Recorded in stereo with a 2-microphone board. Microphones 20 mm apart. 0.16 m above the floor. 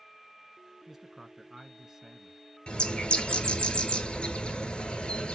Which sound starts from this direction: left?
A bird, at 2.7 s.